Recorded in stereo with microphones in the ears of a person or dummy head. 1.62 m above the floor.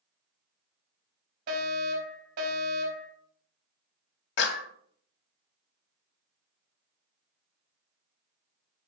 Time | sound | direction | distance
1.5 | a fire alarm | 50° right (ahead or behind) | 4.5 m
4.4 | a clap | 65° left (ahead or behind) | 1.2 m